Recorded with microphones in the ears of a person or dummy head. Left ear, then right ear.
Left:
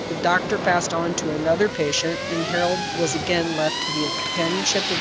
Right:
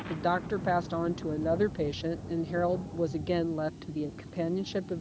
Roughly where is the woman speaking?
Left.